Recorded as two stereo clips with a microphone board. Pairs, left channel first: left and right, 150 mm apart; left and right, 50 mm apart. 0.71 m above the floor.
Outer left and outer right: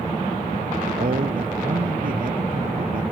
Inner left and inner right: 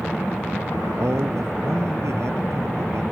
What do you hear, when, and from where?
1.0 s a man speaking: 70° right (ahead or behind)